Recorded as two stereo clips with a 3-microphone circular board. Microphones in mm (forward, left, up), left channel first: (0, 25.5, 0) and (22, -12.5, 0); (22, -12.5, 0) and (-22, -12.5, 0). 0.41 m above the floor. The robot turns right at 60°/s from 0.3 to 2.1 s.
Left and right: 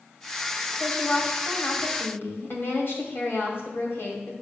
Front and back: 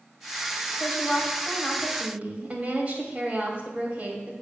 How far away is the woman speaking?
About 2 m.